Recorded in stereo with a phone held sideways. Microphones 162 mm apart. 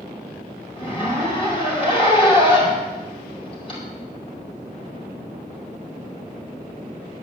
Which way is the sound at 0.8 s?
35° left (ahead or behind).